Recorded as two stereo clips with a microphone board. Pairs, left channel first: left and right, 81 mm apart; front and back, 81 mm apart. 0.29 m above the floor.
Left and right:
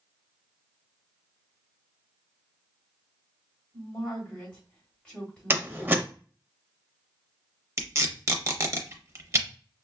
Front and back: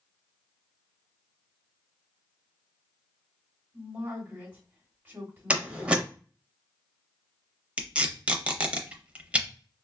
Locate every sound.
3.7 s a woman speaking: 150° left, 1.5 m
5.5 s a door slam: 125° right, 0.6 m
7.8 s tape being pulled: 115° right, 0.6 m